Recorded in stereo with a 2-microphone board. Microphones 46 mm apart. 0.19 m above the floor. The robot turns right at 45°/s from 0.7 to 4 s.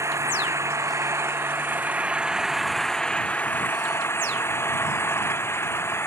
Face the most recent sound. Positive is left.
turn(degrees=60)